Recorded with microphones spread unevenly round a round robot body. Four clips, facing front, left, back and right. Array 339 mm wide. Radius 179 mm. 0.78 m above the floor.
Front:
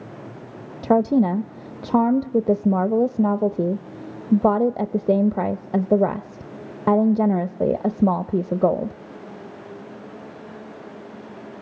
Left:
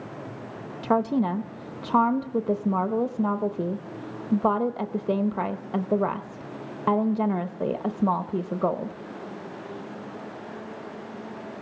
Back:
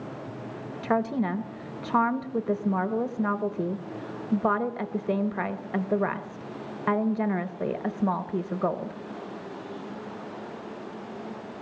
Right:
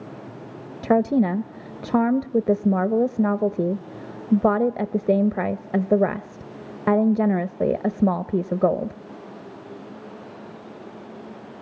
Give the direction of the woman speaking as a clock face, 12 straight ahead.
1 o'clock.